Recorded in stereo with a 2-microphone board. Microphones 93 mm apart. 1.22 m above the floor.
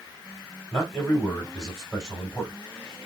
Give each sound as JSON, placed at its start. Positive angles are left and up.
{"t": 0.7, "sound": "a man speaking", "side_deg": 5, "distance_m": 1.7}